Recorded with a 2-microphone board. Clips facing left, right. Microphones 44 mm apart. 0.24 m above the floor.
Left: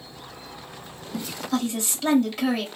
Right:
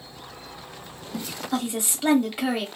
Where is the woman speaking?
15° right (ahead or behind), 0.9 m.